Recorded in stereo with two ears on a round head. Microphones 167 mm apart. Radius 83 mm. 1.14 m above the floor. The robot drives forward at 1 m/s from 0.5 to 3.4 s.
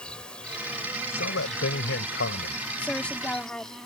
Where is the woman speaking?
5° left (ahead or behind).